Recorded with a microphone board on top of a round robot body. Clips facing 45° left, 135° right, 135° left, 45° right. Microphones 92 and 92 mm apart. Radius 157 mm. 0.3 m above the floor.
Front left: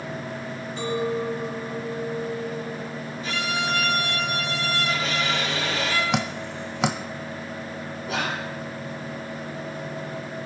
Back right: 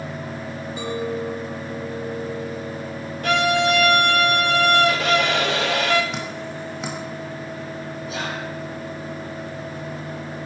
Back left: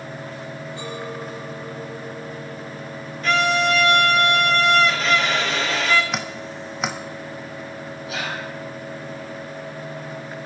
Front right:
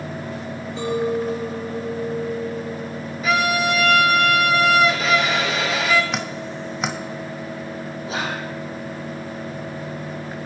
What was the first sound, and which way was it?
A clink, 55° right.